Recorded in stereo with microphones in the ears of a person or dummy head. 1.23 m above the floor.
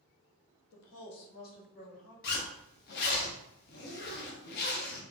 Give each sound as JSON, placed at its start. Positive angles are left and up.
{"t": 0.7, "sound": "a woman speaking", "side_deg": 65, "distance_m": 0.9}
{"t": 2.2, "sound": "a zipper", "side_deg": 55, "distance_m": 0.7}